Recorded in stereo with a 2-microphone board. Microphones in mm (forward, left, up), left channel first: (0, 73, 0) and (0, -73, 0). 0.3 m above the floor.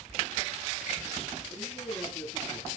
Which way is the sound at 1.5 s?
25° left (ahead or behind).